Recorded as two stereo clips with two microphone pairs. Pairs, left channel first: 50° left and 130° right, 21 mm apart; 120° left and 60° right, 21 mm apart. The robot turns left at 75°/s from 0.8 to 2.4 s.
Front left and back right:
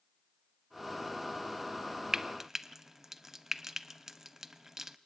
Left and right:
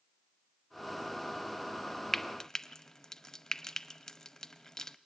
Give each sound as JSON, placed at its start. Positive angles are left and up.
{"t": 2.1, "sound": "frying", "azimuth_deg": -170, "distance_m": 0.8}